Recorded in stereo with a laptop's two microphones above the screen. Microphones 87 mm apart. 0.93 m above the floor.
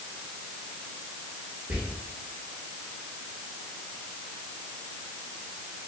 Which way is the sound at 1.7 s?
10° right (ahead or behind).